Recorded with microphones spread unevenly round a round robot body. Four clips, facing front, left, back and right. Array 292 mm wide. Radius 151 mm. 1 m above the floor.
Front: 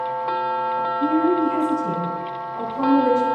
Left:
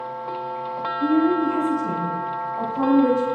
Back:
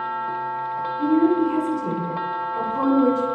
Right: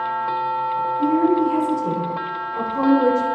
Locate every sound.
1.0 s a woman speaking: 135° right, 4.5 m; by 3.2 s 115° right, 4 m